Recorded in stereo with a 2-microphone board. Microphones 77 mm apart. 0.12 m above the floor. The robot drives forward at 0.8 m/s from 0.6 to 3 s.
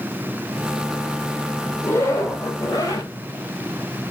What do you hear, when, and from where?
1.8 s a zipper: 35° left (ahead or behind), 1.8 m; by 3.1 s 60° left (ahead or behind), 1.2 m